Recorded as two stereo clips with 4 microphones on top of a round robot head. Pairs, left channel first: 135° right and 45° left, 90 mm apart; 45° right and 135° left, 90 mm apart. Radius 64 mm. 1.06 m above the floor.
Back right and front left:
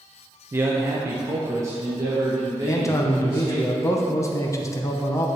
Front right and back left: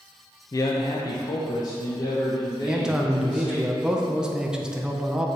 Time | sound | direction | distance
0.5 | a man speaking | 10° right | 0.5 m
2.7 | a man speaking | 145° right | 0.9 m